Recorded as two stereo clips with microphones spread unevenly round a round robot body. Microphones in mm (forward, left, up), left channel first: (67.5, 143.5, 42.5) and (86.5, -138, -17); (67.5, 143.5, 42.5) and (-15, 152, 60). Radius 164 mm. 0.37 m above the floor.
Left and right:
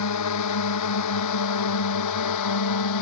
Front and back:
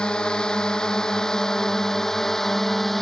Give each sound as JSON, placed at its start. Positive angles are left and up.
{"t": 0.0, "sound": "a drone", "azimuth_deg": 75}